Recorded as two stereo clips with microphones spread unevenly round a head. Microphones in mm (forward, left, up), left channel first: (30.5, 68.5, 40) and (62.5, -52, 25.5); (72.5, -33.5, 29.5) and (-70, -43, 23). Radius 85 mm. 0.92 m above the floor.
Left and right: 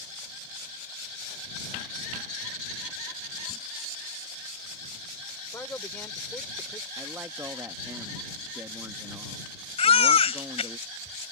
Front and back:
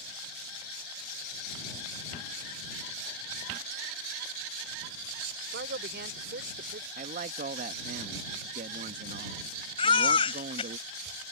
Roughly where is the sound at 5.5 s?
Behind.